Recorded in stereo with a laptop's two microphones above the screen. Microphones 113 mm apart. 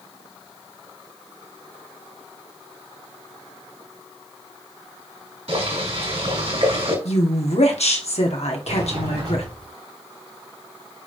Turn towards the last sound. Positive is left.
turn(degrees=-60)  # may be behind; listen again after turning